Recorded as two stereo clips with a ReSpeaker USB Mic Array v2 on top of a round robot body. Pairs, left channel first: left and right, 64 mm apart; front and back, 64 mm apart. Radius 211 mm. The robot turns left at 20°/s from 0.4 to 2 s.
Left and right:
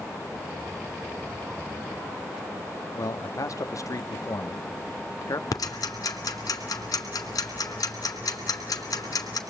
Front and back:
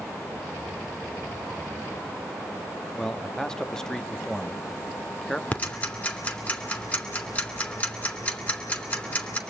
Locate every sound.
3.0 s a man speaking: 80° left, 1.1 m
5.5 s ticking: 65° left, 2.5 m